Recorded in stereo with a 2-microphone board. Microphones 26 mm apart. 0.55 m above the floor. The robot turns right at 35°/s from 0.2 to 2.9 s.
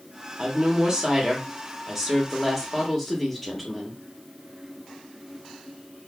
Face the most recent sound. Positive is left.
turn(degrees=0)  # may be behind; listen again after turning